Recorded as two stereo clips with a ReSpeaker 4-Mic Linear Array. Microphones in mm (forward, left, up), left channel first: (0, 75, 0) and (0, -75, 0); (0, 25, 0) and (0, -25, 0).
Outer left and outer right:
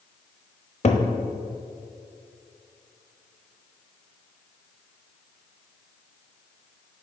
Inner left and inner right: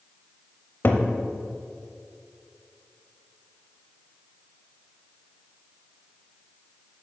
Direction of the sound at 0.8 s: 50° left (ahead or behind).